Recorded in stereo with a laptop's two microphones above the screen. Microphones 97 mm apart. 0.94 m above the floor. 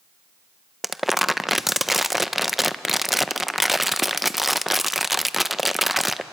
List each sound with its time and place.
0.8 s crumpling: centre (ahead or behind), 0.5 m